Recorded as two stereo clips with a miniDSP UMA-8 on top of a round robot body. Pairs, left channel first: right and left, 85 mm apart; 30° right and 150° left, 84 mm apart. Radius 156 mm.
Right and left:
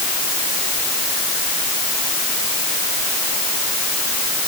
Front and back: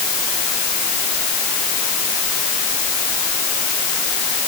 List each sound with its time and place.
Only background noise.